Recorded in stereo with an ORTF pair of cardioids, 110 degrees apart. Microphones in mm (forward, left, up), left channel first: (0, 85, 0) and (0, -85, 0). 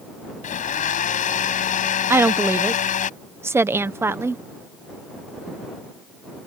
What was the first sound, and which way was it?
A blender, 50° left.